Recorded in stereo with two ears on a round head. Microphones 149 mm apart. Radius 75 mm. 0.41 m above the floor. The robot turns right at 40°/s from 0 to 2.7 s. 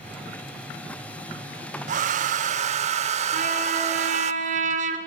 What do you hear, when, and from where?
1.9 s a hair dryer: 100° right, 0.6 m; by 4.3 s 65° right, 0.6 m
3.3 s a trumpet: 50° right (ahead or behind), 1.7 m